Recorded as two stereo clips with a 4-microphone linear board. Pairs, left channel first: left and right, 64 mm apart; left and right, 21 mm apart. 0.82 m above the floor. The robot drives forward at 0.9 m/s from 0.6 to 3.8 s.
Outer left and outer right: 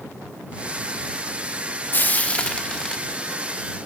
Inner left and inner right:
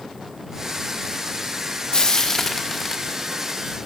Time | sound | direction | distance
1.9 | frying | 35° left (ahead or behind) | 0.6 m